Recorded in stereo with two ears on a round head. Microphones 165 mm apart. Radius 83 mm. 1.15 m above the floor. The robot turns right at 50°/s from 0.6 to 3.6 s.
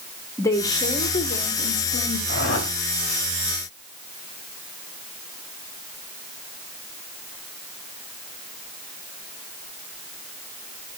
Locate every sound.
0.4 s a woman speaking: 20° left, 1.1 m; by 2.2 s 95° left, 1.1 m
2.3 s a whoosh: 60° left (ahead or behind), 1.7 m; by 2.7 s 65° left (ahead or behind), 1.7 m